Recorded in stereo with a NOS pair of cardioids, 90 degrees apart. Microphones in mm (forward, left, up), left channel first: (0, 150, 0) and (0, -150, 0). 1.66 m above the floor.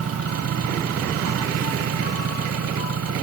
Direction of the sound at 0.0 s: 50° right.